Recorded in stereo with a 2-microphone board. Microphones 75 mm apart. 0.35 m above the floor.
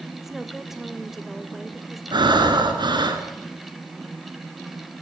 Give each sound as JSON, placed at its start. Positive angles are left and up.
{"t": 0.1, "sound": "a woman speaking", "side_deg": -5, "distance_m": 1.3}
{"t": 2.1, "sound": "breathing", "side_deg": -75, "distance_m": 2.5}